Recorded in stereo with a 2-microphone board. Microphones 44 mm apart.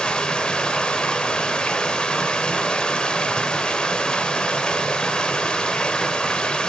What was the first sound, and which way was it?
Running water, 20° left (ahead or behind).